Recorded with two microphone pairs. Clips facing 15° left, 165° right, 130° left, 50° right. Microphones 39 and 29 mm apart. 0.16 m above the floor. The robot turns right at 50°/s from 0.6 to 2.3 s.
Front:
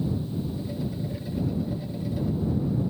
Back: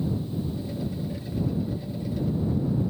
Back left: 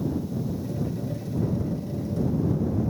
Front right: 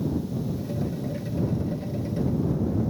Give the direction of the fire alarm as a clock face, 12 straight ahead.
I don't hear a fire alarm.